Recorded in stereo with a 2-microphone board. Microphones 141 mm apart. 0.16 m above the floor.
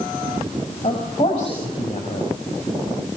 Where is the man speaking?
40° left (ahead or behind), 5 m.